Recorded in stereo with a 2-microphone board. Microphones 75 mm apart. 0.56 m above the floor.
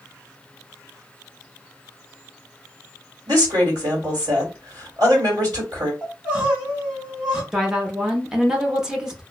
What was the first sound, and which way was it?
A woman speaking, 55° right (ahead or behind).